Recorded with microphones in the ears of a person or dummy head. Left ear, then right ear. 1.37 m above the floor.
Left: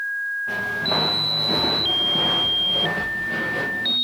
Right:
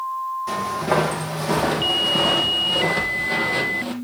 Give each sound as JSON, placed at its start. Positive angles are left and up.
{"t": 0.5, "sound": "footsteps", "side_deg": -60, "distance_m": 3.5}